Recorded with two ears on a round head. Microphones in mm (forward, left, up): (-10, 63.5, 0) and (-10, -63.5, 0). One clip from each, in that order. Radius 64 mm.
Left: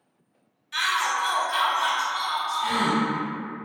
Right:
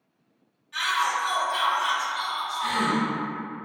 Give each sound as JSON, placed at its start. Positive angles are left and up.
{"t": 0.7, "sound": "a shout", "side_deg": 60, "distance_m": 0.9}
{"t": 2.6, "sound": "a gasp", "side_deg": -45, "distance_m": 0.8}